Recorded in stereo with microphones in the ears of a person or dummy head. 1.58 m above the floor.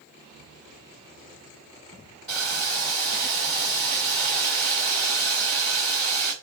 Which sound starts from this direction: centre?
Boiling, at 2.3 s.